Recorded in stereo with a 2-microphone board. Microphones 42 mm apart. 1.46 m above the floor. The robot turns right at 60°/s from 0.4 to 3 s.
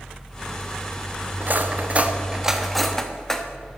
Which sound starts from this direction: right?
Cutlery clinking, at 1.4 s.